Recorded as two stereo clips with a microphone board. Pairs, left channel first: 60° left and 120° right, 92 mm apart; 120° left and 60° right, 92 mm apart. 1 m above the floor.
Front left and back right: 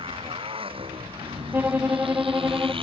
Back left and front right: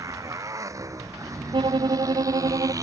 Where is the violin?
55° right.